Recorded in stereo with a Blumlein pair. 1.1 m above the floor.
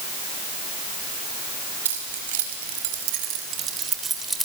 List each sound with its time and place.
1.9 s keys jangling: 65° right, 4.5 m; by 4.5 s straight ahead, 2.5 m